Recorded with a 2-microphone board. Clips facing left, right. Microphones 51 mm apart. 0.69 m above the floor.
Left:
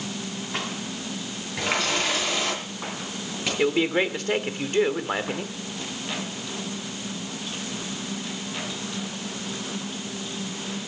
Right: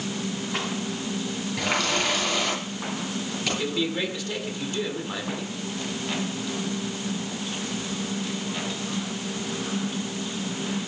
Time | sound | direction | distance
1.6 | a running tap | 10° left (ahead or behind) | 8 m
3.6 | a man speaking | 45° left (ahead or behind) | 1.6 m